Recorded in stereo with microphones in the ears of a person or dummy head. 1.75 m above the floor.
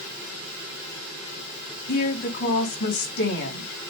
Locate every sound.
1.9 s a woman speaking: 55° left (ahead or behind), 3.5 m